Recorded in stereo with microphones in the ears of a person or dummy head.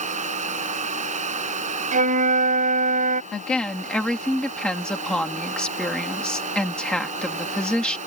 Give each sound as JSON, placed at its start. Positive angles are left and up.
{"t": 0.0, "sound": "a fan", "side_deg": -40}
{"t": 1.9, "sound": "a flute", "side_deg": -40}
{"t": 3.3, "sound": "a woman speaking", "side_deg": 5}